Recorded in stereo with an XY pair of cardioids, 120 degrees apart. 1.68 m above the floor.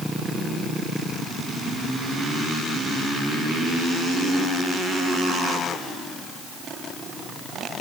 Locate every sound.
Only background noise.